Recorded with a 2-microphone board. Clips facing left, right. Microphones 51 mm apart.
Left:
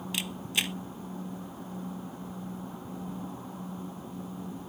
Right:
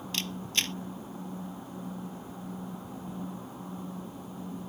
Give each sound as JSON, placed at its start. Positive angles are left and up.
{"t": 0.1, "sound": "a camera shutter", "side_deg": 10}